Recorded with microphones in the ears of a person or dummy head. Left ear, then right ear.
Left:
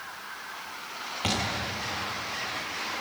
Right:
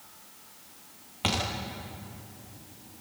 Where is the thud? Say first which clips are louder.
Even; centre (ahead or behind), 7.5 m.